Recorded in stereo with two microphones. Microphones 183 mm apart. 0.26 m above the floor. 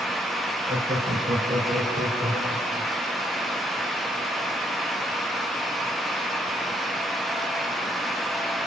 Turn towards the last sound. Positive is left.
turn(degrees=-40)  # may be behind; listen again after turning